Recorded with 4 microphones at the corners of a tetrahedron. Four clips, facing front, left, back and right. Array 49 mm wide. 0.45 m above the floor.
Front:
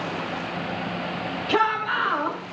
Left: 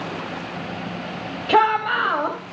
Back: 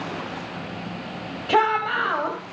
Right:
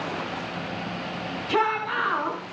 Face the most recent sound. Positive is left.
turn(degrees=110)